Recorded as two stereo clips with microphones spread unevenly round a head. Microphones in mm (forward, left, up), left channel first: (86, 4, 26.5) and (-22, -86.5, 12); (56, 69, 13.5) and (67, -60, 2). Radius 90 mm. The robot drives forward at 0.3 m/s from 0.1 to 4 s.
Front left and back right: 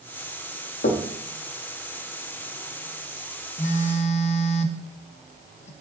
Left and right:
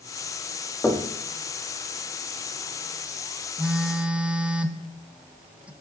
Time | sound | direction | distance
0.8 | knocking | 15° left | 0.9 m
3.6 | a phone buzzing | 5° right | 0.7 m